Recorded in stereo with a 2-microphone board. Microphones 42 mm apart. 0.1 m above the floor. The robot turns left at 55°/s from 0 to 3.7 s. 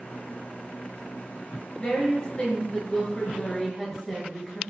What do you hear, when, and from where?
1.8 s a woman speaking: 25° left (ahead or behind), 1.2 m; by 4.6 s centre (ahead or behind), 1.2 m